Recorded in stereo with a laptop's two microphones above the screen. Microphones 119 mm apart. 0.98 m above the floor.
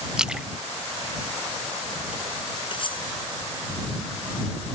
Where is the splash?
5° right (ahead or behind).